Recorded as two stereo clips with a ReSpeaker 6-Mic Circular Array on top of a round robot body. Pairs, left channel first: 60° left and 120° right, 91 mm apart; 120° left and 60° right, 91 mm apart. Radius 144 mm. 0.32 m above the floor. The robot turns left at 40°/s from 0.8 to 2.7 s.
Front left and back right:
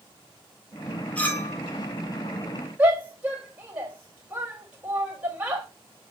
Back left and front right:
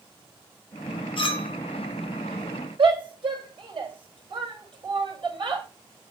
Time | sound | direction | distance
1.2 | a clink | 135° left | 1.1 m
2.8 | a shout | 50° right | 2.5 m